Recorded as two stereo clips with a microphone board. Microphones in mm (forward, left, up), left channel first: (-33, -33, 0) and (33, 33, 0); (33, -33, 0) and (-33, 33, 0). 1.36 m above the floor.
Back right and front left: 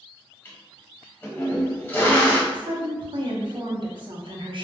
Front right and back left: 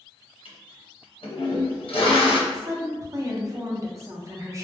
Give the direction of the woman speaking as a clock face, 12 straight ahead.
9 o'clock.